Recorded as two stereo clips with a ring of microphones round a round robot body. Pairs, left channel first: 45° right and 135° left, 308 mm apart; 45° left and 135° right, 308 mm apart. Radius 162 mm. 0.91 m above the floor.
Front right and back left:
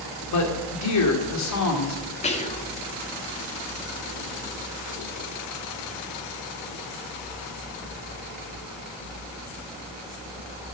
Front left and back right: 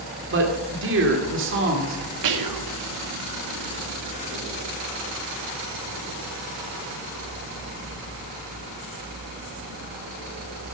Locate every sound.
0.3 s a man speaking: 80° right, 2.5 m
2.2 s whispering: 115° right, 1.9 m